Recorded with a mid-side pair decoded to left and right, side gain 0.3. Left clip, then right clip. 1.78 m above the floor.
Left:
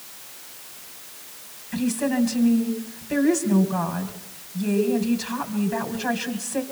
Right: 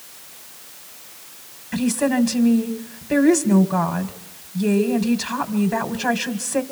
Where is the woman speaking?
60° right, 1.9 m.